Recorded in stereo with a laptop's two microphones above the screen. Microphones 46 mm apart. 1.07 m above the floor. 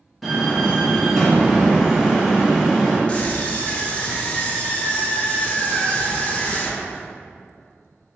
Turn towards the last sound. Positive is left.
turn(degrees=25)  # may be behind; listen again after turning